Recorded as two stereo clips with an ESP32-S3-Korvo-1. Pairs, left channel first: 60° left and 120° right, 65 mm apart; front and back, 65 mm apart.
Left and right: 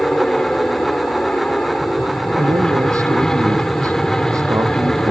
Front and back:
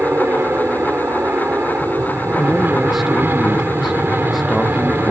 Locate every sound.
0.0 s an aircraft: 135° left
2.4 s a man speaking: 90° right